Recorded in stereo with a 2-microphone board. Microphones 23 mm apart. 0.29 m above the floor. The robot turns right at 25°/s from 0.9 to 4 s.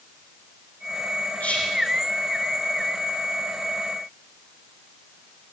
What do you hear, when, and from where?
1.4 s whispering: 80° left, 7.5 m; by 1.7 s 75° left (ahead or behind), 7.5 m